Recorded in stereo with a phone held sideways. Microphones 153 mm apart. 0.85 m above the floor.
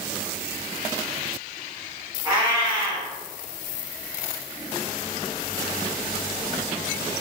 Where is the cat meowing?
25° right (ahead or behind), 1.0 m.